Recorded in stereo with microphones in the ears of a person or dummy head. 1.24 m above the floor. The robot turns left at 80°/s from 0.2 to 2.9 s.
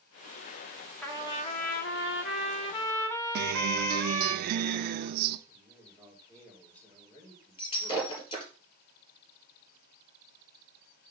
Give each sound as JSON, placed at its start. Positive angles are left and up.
{"t": 1.0, "sound": "a trumpet", "azimuth_deg": 175, "distance_m": 1.3}
{"t": 3.4, "sound": "a guitar", "side_deg": -60, "distance_m": 0.6}
{"t": 5.5, "sound": "a man speaking", "side_deg": 15, "distance_m": 4.5}
{"t": 7.6, "sound": "breaking glass", "side_deg": 35, "distance_m": 4.0}